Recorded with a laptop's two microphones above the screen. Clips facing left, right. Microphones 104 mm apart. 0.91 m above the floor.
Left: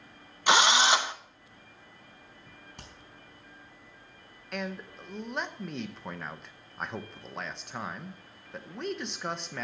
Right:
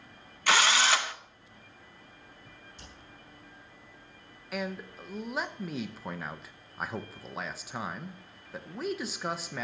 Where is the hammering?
85° left, 4.5 m.